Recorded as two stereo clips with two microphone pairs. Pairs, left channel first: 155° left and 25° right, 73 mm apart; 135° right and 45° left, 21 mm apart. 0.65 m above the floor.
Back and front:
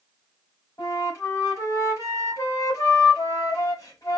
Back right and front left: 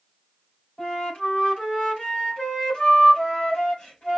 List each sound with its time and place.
0.8 s a flute: 165° right, 3 m